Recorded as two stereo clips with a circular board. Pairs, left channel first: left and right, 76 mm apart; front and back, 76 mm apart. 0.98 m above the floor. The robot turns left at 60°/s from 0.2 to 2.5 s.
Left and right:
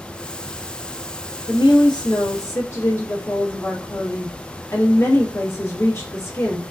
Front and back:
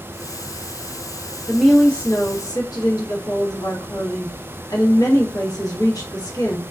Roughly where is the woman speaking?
Left.